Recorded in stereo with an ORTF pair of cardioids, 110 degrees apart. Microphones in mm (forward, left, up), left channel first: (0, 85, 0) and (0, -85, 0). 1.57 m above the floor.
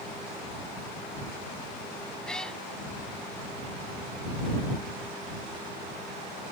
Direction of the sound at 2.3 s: 5° left.